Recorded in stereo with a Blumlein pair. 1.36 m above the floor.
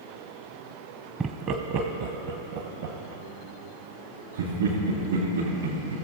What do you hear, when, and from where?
1.2 s laughter: 20° right, 0.6 m; by 5.9 s 75° right, 3.5 m